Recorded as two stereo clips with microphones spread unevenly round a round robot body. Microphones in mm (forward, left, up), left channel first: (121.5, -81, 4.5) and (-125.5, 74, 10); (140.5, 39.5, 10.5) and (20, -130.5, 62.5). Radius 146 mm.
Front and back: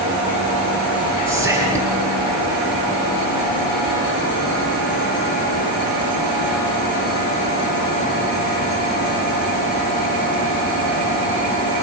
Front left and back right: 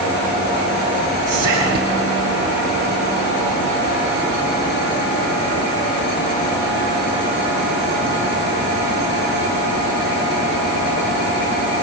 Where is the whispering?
130° right, 5.5 m.